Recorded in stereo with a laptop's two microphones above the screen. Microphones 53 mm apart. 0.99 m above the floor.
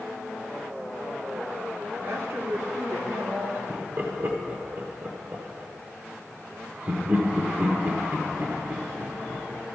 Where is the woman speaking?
65° right (ahead or behind), 1.6 m.